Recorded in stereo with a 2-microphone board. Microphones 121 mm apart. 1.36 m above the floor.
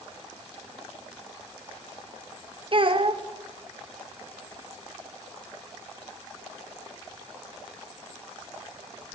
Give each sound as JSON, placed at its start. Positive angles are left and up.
{"t": 2.7, "sound": "a child speaking", "side_deg": -45, "distance_m": 0.7}